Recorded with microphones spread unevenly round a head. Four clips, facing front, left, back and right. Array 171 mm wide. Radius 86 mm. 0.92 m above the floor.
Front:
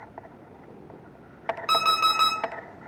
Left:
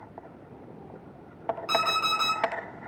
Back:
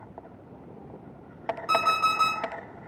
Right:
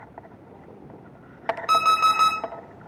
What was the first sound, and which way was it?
An alarm clock, 40° right.